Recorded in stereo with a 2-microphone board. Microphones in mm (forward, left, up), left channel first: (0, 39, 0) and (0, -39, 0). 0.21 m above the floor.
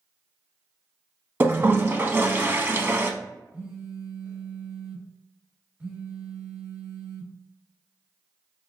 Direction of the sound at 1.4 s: 30° right (ahead or behind).